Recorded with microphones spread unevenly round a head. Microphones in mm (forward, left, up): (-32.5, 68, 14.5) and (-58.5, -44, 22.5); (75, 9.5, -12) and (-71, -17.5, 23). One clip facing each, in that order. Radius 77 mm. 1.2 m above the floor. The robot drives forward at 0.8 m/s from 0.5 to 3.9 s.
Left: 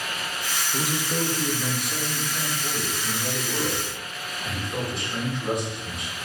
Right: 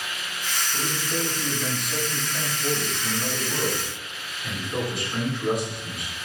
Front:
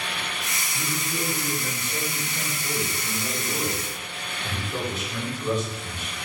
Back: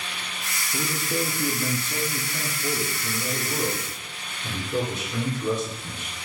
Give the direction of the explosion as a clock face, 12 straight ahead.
I don't hear an explosion.